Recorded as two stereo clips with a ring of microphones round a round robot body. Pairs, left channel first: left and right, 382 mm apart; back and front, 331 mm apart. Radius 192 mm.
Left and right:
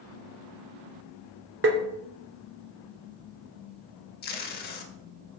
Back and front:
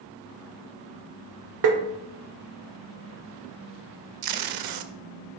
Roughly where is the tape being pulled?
Ahead left.